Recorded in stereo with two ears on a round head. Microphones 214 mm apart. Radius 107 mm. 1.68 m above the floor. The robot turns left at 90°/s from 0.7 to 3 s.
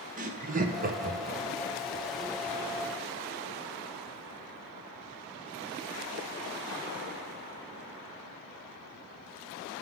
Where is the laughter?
35° right (ahead or behind), 0.7 m; by 1.4 s 20° right (ahead or behind), 0.7 m.